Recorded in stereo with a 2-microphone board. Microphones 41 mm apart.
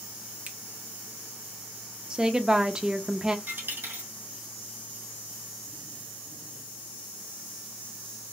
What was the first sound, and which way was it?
A finger snap, 40° right (ahead or behind).